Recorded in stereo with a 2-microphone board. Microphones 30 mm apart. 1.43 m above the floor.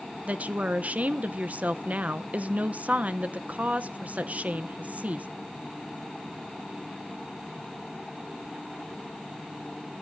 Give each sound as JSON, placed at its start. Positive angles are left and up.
{"t": 0.3, "sound": "a woman speaking", "side_deg": -55, "distance_m": 0.7}